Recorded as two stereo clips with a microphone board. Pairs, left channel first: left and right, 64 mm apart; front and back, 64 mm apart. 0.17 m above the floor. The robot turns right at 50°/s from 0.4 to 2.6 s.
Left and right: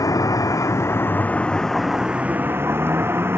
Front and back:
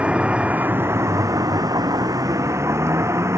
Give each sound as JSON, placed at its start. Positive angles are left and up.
{"t": 0.0, "sound": "a vehicle", "azimuth_deg": 110}